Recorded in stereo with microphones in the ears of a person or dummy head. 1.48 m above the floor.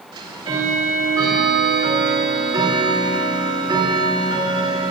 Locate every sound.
0.1 s ticking: 25° right (ahead or behind), 3.5 m